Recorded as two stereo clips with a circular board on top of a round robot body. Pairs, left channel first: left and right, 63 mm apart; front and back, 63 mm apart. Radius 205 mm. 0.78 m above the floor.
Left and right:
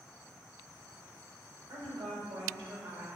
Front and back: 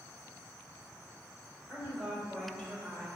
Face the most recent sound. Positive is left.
turn(degrees=-90)